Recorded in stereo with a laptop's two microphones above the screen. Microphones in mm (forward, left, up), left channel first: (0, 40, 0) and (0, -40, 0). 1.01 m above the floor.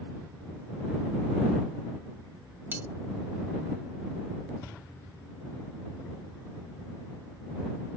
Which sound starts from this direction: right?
Cutlery clinking, at 2.7 s.